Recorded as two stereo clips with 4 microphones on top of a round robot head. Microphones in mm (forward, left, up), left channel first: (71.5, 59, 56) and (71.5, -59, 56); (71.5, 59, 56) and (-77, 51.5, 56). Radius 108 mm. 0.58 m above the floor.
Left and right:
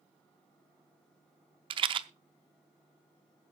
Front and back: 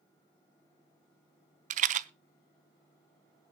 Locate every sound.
1.7 s a rattle: 140° right, 0.6 m